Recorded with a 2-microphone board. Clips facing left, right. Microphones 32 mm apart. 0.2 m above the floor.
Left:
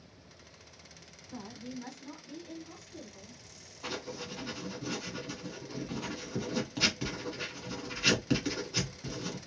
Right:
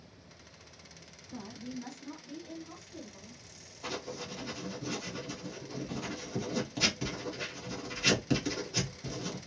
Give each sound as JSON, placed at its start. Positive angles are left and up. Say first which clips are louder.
{"t": 1.3, "sound": "a woman speaking", "louder": "right 1 dB", "side_deg": 30, "distance_m": 1.3}
{"t": 3.8, "sound": "writing", "louder": "even", "side_deg": 15, "distance_m": 1.4}